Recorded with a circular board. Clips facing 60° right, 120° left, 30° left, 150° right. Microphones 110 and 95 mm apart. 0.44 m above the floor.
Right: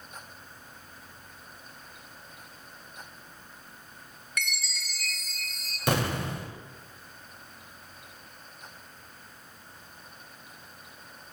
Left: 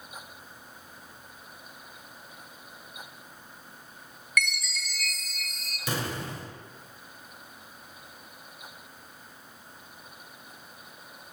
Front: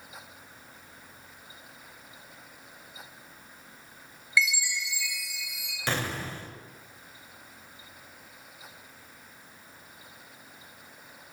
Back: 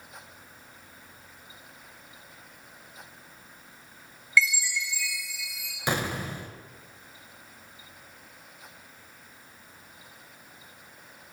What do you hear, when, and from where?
4.4 s a chime: 30° right, 1.1 m
5.9 s an explosion: 75° right, 0.7 m